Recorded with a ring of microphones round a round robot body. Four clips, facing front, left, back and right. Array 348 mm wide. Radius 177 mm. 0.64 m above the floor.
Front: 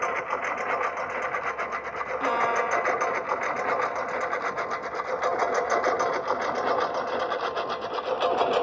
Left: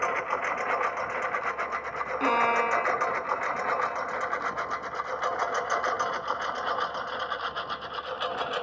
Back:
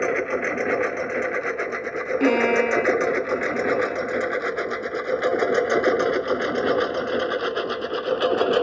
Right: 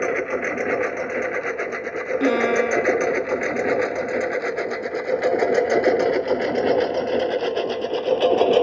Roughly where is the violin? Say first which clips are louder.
Right 5 dB, back 6 dB; behind right.